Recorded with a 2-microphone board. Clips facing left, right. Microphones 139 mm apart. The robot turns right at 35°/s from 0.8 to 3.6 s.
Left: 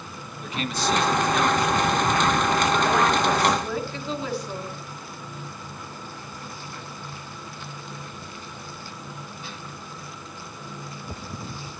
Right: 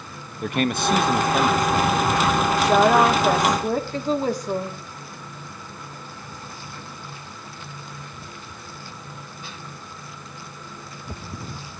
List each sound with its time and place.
0.4 s a man speaking: 90° right, 0.7 m; by 3.6 s 5° left, 0.7 m
2.6 s a woman speaking: 80° right, 1.5 m; by 4.8 s 45° right, 1.5 m